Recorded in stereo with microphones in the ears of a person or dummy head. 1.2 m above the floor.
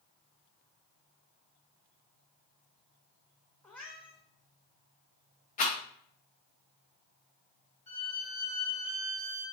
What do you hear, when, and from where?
3.6 s a cat meowing: 5° left (ahead or behind), 0.7 m
5.6 s a rattle: 40° left (ahead or behind), 0.9 m
7.9 s a violin: 35° left (ahead or behind), 1.0 m